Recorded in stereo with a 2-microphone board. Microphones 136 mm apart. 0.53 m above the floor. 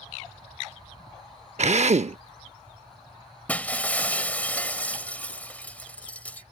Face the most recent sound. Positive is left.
turn(degrees=10)  # may be behind; listen again after turning